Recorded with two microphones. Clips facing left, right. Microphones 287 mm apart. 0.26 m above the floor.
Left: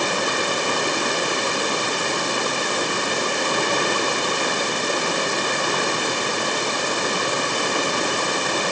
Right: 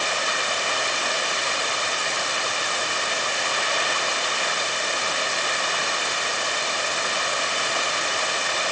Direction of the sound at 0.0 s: 55° left (ahead or behind).